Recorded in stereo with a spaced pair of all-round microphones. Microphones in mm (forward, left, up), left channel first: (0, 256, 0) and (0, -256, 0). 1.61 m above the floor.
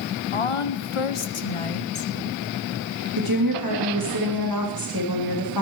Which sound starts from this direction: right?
A woman speaking, at 3.2 s.